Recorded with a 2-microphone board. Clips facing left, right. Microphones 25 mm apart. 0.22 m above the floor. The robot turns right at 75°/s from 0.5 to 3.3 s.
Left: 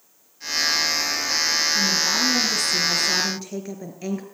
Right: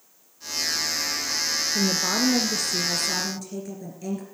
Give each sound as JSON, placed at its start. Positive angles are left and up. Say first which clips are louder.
{"t": 1.8, "sound": "a woman speaking", "louder": "left 3 dB", "azimuth_deg": -80, "distance_m": 3.0}